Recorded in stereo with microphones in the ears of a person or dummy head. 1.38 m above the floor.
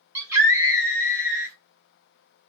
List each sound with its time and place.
0.1 s a scream: 15° right (ahead or behind), 1.1 m